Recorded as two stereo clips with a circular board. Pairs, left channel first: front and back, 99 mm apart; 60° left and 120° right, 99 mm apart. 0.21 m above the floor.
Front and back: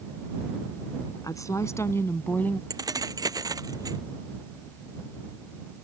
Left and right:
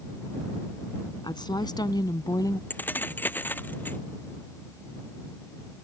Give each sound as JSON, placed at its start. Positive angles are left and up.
{"t": 1.2, "sound": "a woman speaking", "azimuth_deg": 40}
{"t": 2.7, "sound": "keys jangling", "azimuth_deg": 130}